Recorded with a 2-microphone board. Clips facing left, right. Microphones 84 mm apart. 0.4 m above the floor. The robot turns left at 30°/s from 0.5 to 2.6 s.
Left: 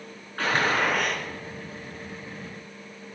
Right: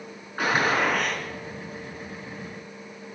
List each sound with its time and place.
0.4 s a gunshot: 15° right (ahead or behind), 4.5 m; by 1.2 s 10° left (ahead or behind), 4.5 m